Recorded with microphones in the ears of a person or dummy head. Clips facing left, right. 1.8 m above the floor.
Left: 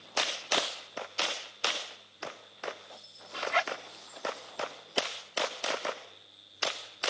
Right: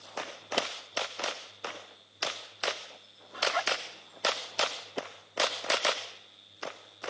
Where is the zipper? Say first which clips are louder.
Even; 40° left (ahead or behind).